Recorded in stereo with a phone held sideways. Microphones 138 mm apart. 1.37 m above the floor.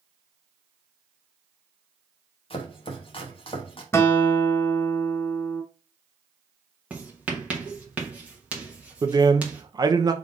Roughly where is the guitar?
Centre.